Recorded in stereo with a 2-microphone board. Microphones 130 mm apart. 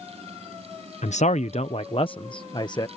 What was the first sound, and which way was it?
A man speaking, 65° left (ahead or behind).